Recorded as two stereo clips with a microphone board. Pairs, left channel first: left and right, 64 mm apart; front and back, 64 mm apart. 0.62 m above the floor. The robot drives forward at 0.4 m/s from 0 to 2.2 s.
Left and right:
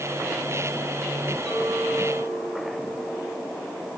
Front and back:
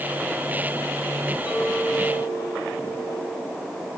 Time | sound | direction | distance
1.4 | a clink | 10° right | 7.5 m